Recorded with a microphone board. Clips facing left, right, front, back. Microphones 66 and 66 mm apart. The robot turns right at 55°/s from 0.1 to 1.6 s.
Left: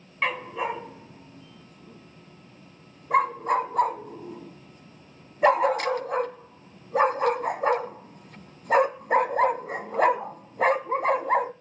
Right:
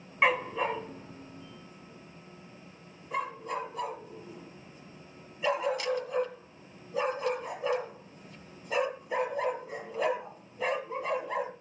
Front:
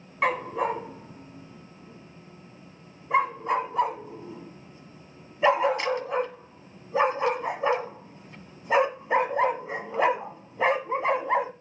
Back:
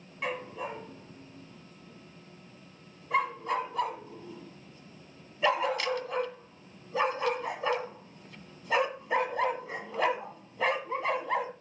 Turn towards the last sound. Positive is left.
turn(degrees=65)